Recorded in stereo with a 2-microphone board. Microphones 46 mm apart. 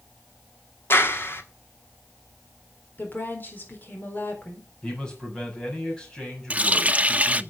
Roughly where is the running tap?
Right.